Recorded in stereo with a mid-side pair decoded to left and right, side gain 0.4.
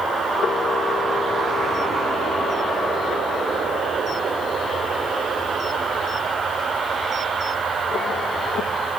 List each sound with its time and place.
0.4 s a camera shutter: 65° left, 1.4 m